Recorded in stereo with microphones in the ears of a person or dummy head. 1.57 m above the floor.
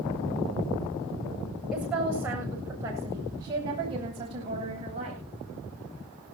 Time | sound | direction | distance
1.7 | a woman speaking | 5° right (ahead or behind) | 7.5 m